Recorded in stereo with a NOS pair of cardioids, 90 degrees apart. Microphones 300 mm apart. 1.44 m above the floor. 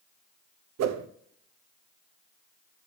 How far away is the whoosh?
About 0.7 m.